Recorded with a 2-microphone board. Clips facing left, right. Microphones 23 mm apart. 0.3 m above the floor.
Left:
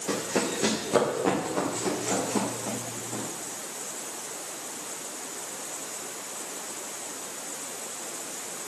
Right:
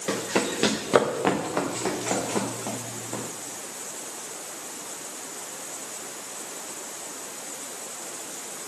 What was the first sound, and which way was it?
Running footsteps, 70° right (ahead or behind).